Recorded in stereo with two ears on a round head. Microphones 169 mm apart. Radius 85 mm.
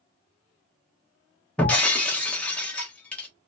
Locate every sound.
1.6 s breaking glass: 5° left (ahead or behind), 1.0 m